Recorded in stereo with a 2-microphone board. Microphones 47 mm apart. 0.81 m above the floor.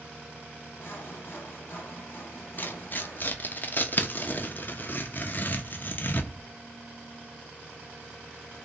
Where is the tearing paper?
40° left (ahead or behind), 0.6 m.